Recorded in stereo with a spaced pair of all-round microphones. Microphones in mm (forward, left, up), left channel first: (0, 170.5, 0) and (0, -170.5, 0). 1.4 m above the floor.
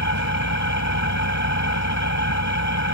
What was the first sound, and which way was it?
An engine running, 55° left (ahead or behind).